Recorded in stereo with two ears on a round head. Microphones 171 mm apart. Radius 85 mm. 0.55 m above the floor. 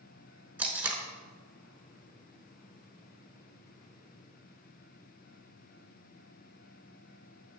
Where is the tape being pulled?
10° right (ahead or behind), 1.0 m.